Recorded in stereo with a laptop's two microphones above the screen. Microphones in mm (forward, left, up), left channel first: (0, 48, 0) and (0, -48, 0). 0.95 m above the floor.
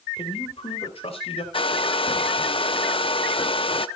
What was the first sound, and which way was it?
A man speaking, 75° left (ahead or behind).